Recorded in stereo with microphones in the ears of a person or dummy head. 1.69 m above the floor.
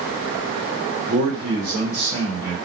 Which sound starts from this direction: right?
A man speaking, at 1.1 s.